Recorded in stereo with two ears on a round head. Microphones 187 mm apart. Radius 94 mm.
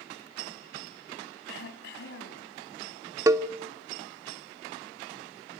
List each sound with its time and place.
1.5 s throat clearing: 65° left (ahead or behind), 2.5 m
3.3 s a cowbell: 15° right (ahead or behind), 0.6 m